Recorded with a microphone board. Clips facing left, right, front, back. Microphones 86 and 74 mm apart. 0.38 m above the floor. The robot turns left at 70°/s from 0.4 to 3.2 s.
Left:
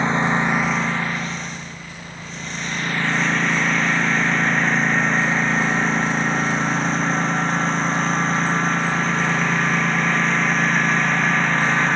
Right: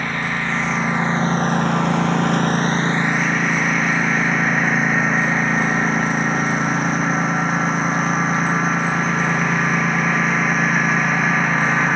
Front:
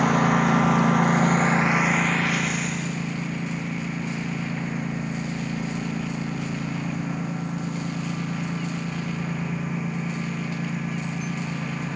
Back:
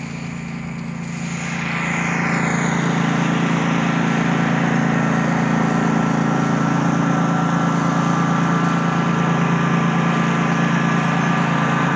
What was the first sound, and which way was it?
A lawn mower, 20° left.